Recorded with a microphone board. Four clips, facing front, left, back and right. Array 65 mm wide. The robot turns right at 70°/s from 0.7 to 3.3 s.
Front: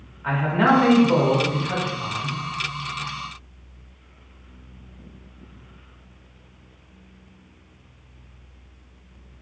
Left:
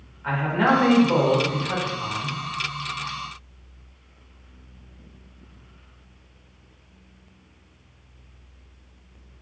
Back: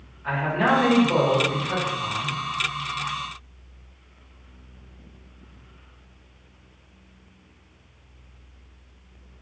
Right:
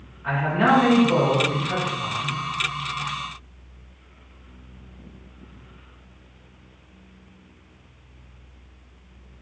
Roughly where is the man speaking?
Ahead left.